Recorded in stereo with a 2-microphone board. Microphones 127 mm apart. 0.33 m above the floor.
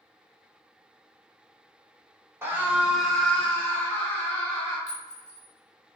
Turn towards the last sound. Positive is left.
turn(degrees=25)  # may be behind; listen again after turning